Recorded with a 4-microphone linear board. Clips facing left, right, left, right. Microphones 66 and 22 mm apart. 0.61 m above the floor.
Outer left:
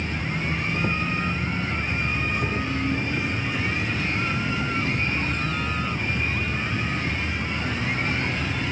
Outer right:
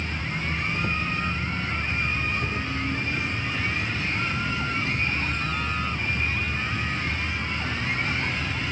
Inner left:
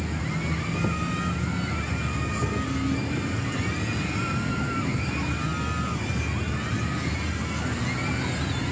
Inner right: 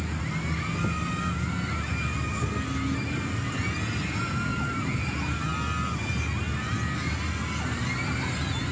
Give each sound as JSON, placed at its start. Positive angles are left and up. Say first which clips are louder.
{"t": 0.0, "sound": "an insect", "louder": "outer left 2 dB, inner left 2 dB", "side_deg": 20}